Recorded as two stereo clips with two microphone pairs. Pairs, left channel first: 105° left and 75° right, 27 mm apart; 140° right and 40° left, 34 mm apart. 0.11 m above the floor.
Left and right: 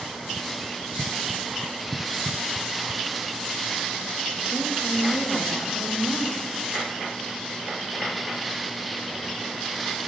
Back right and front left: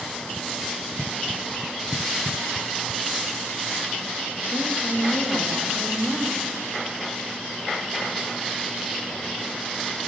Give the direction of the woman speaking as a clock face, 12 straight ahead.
10 o'clock.